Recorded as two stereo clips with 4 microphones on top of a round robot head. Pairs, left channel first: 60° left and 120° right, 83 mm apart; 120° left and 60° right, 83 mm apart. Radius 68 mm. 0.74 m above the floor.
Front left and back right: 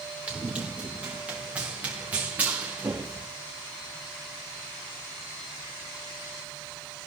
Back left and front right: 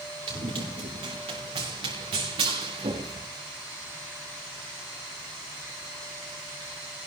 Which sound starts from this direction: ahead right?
Running footsteps, at 0.3 s.